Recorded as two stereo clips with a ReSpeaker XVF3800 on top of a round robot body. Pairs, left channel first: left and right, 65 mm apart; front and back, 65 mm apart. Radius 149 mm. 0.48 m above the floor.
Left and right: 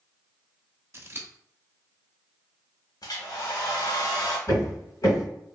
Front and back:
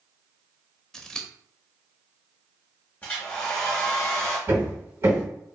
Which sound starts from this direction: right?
Scissors, at 0.9 s.